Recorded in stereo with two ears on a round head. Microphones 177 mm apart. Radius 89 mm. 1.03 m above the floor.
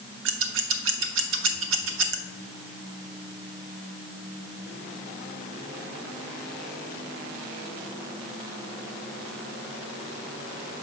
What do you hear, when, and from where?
0.2 s scissors: 70° right (ahead or behind), 0.8 m